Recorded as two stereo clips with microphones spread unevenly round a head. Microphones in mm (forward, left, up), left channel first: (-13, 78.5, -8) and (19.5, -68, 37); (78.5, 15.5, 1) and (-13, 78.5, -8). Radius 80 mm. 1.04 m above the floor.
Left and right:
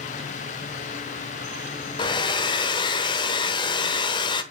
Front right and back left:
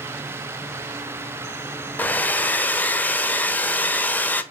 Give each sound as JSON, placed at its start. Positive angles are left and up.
{"t": 2.0, "sound": "a hair dryer", "azimuth_deg": 35, "distance_m": 1.0}